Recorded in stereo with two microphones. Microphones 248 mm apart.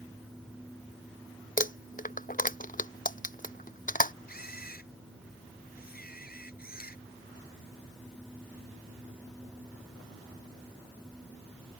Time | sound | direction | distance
1.6 | crumpling | 35° left (ahead or behind) | ?
4.3 | a camera shutter | 40° left (ahead or behind) | ?